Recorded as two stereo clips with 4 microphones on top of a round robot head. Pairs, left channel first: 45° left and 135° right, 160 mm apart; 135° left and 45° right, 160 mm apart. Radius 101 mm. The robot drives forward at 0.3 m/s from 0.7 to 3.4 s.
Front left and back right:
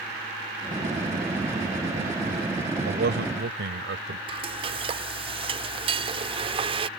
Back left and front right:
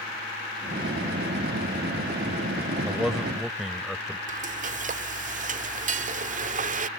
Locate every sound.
2.9 s a man speaking: 135° right
4.3 s frying: 80° right